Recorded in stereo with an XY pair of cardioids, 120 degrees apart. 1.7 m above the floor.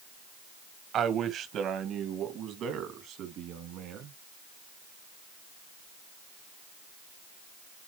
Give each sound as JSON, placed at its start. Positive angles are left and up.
{"t": 0.9, "sound": "a man speaking", "azimuth_deg": -55, "distance_m": 2.0}